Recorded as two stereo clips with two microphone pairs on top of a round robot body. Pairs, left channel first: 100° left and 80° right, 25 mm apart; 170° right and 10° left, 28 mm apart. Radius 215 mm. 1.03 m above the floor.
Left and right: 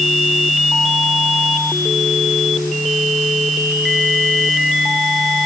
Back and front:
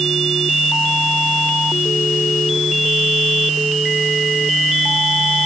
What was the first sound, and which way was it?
Only background noise.